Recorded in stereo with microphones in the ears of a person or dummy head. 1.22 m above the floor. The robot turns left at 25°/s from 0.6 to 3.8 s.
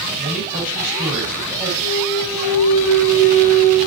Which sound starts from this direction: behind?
A clunk, at 1.8 s.